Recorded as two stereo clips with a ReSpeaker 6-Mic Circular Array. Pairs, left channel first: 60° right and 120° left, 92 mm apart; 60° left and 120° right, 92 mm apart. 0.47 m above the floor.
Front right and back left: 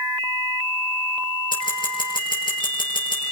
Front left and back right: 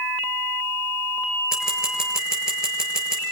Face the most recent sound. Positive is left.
turn(degrees=-35)